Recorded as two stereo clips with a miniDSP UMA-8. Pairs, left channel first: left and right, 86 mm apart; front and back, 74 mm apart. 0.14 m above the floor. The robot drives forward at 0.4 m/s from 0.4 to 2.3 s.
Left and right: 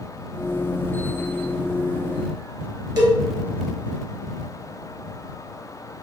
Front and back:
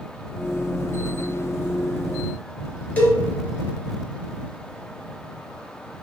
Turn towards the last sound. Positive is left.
turn(degrees=-70)